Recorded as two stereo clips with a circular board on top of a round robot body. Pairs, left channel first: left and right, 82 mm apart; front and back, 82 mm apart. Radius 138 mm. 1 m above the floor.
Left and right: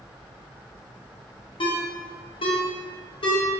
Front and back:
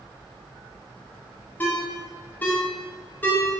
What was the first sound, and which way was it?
A ringtone, 70° left.